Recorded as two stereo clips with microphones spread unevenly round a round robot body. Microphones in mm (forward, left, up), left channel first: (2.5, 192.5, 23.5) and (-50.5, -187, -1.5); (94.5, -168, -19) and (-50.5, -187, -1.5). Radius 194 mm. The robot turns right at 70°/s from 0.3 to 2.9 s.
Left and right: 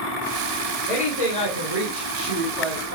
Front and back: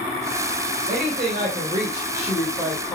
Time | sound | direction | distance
0.9 | a woman speaking | 170° left | 3 m